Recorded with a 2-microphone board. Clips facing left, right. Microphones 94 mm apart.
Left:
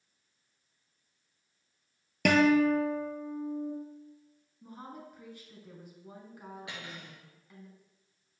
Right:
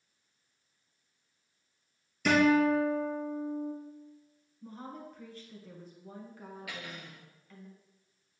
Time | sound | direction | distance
2.2 | a guitar | 70° left (ahead or behind) | 1.3 m
4.6 | a woman speaking | 15° left (ahead or behind) | 1.6 m
6.7 | cutlery clinking | 25° left (ahead or behind) | 1.6 m